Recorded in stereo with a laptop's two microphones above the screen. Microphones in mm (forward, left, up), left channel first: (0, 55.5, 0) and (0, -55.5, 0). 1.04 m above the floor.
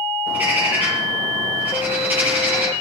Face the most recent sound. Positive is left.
turn(degrees=-15)  # may be behind; listen again after turning